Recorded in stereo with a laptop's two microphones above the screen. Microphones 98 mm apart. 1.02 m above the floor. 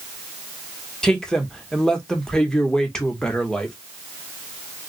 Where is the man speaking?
5° left (ahead or behind), 1.4 m.